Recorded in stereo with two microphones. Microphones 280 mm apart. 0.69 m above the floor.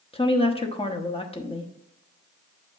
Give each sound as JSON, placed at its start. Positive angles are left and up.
{"t": 0.1, "sound": "a woman speaking", "side_deg": 20, "distance_m": 0.8}